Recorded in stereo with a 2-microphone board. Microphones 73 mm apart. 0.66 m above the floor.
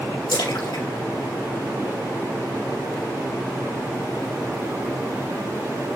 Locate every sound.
0.3 s a splash: 85° left, 3.5 m